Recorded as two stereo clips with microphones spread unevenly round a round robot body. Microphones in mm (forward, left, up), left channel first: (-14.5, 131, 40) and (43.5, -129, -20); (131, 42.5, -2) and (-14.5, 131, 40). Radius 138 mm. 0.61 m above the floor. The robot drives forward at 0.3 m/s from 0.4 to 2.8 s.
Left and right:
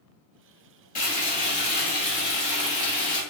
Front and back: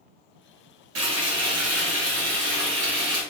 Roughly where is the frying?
Behind.